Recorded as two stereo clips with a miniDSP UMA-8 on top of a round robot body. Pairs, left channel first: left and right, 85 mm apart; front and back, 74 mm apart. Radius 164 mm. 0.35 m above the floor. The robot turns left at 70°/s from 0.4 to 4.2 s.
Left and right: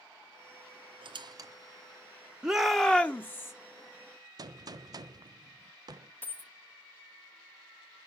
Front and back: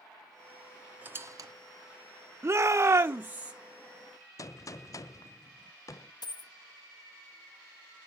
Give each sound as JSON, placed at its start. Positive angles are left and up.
{"t": 1.0, "sound": "a squeak", "azimuth_deg": -110, "distance_m": 1.5}
{"t": 2.4, "sound": "a shout", "azimuth_deg": -160, "distance_m": 1.0}
{"t": 4.4, "sound": "a gunshot", "azimuth_deg": -45, "distance_m": 0.6}
{"t": 6.2, "sound": "a dropped coin", "azimuth_deg": 20, "distance_m": 0.9}